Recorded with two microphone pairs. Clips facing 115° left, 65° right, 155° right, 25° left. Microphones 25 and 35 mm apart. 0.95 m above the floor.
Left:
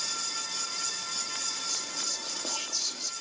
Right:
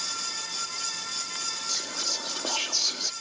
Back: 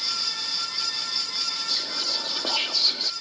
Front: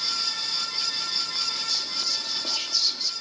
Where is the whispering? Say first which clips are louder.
Right 4 dB, back 1 dB; 110° right.